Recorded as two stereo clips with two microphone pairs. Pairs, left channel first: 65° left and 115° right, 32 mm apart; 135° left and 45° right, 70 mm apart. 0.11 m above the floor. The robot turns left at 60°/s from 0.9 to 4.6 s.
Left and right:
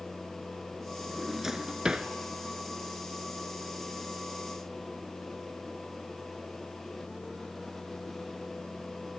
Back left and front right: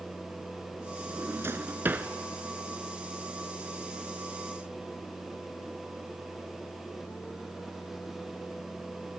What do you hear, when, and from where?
1.1 s a drawer: 35° right, 0.7 m; by 2.1 s 95° right, 0.7 m